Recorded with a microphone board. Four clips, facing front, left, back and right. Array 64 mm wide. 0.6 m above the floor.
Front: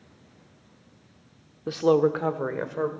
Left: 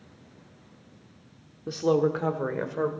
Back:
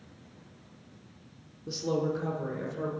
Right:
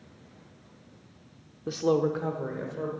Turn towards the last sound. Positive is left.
turn(degrees=45)